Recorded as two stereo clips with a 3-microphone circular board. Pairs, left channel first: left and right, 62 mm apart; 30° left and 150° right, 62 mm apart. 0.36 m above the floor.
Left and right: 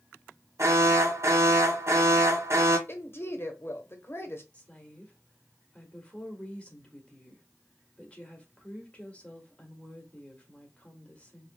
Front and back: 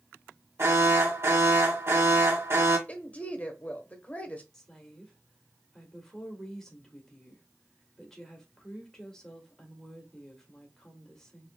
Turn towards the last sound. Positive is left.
turn(degrees=95)